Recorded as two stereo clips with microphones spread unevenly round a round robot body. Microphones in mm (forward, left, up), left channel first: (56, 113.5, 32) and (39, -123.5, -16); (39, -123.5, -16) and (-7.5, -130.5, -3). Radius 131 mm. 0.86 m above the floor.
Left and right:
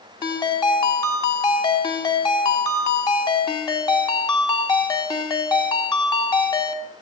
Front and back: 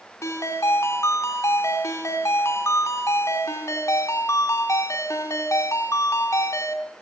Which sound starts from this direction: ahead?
A ringtone, at 0.2 s.